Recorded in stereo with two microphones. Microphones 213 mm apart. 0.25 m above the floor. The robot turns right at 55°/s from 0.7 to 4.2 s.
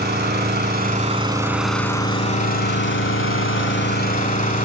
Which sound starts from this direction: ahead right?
An engine running, at 0.0 s.